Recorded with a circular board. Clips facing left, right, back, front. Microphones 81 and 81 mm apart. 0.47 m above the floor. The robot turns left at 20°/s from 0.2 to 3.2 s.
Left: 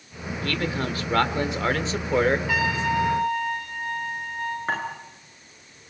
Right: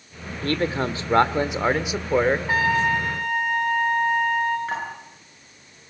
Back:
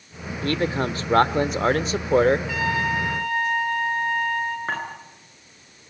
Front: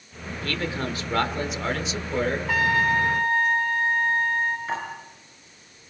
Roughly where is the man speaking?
Behind right.